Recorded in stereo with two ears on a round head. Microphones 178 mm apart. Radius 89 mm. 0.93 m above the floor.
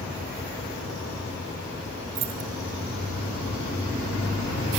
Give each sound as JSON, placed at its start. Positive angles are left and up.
{"t": 2.1, "sound": "keys jangling", "side_deg": -70, "distance_m": 1.5}